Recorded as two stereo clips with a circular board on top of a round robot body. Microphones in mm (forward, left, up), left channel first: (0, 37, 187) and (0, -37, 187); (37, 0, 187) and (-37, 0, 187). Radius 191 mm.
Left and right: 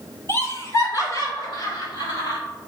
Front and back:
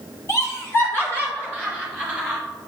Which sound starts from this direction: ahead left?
Laughter, at 0.3 s.